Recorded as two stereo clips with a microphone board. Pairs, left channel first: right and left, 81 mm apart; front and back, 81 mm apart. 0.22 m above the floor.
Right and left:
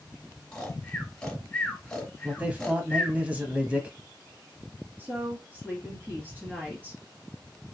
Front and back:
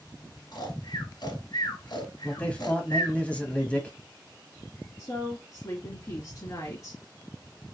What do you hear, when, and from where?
0.5 s snoring: 10° right, 1.5 m
2.2 s a man speaking: 50° left, 1.0 m
5.0 s a woman speaking: 35° left, 1.5 m